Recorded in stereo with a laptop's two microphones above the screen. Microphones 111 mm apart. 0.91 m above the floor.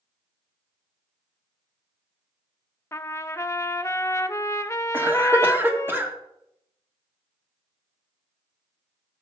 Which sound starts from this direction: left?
A trumpet, at 2.9 s.